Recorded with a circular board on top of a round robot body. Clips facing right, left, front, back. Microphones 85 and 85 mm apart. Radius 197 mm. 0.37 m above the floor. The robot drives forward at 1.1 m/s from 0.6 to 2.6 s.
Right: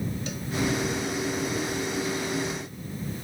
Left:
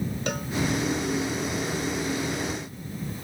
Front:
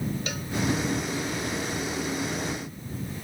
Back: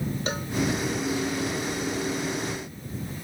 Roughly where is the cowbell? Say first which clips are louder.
Left 5 dB, back 4 dB; behind left.